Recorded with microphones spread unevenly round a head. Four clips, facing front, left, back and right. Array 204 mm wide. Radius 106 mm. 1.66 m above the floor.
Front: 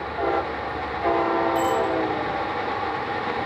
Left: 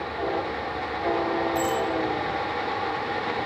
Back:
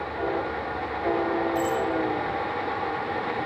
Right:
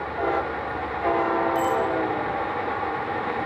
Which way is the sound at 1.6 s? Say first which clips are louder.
Right 2 dB, front 4 dB; 20° right.